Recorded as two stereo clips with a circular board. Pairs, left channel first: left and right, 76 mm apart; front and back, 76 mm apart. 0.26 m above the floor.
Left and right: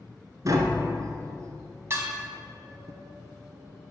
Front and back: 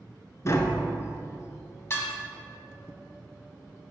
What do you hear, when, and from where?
0.5 s tapping: 50° right, 0.8 m
1.9 s dishes clattering: 45° right, 1.2 m